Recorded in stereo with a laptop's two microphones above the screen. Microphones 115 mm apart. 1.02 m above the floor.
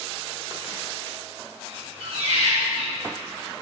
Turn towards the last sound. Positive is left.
turn(degrees=-65)  # may be behind; listen again after turning